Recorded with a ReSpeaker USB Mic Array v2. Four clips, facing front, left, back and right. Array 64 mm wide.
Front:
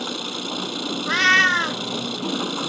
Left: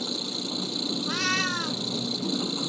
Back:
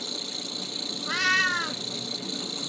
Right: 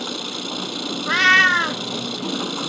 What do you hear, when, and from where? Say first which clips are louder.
0.0 s an engine running: right 4 dB, front 9 dB; 35° right
1.1 s a cat meowing: right 15 dB, front 8 dB; 60° right